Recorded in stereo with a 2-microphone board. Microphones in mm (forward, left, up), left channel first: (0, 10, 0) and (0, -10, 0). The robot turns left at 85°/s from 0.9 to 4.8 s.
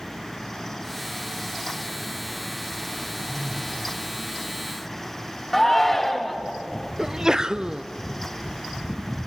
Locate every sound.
3.3 s a phone buzzing: 30° left, 4.5 m; by 3.8 s 15° right, 4.5 m
5.5 s a shout: 10° left (ahead or behind), 2.5 m
7.0 s a sneeze: 30° right (ahead or behind), 0.7 m